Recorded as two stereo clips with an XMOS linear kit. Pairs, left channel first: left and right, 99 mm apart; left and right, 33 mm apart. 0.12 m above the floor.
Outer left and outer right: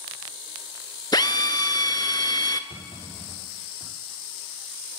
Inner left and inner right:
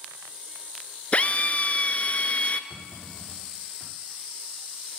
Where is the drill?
40° left (ahead or behind), 0.7 m.